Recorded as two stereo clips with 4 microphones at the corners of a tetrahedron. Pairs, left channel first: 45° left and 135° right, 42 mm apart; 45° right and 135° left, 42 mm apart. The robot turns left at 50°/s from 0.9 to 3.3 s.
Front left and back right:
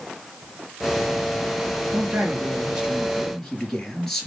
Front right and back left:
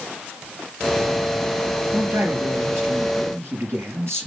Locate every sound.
1.9 s a man speaking: 170° right, 4.5 m; by 4.3 s 125° left, 4.5 m